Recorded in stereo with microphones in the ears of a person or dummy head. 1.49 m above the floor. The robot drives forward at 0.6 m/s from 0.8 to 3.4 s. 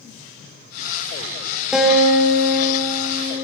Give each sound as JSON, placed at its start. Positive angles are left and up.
{"t": 1.7, "sound": "a guitar", "side_deg": -5, "distance_m": 3.0}